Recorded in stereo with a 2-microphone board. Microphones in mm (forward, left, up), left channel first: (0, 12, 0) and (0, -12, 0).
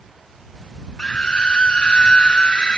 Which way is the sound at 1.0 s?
35° left (ahead or behind).